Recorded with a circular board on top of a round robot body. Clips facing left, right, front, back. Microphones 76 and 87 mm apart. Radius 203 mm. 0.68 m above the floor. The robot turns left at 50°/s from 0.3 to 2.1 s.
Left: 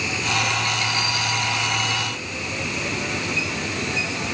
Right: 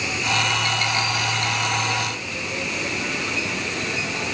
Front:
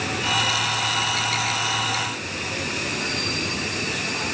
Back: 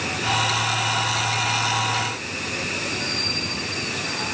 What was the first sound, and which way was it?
Only background noise.